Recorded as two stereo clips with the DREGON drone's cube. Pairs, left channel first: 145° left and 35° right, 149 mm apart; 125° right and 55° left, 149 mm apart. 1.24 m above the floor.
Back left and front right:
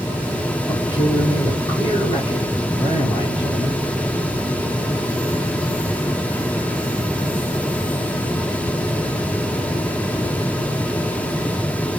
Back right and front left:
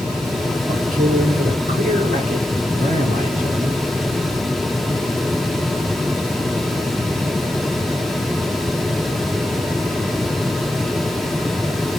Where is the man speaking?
90° left, 1.8 m.